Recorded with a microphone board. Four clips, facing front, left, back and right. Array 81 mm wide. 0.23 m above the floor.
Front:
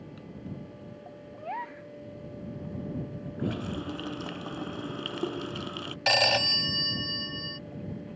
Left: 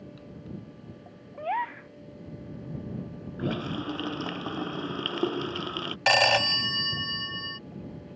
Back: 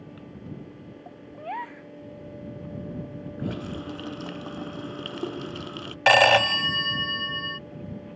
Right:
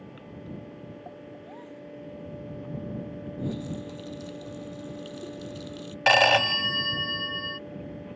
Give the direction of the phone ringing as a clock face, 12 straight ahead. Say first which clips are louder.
Right 3 dB, back 9 dB; 5 o'clock.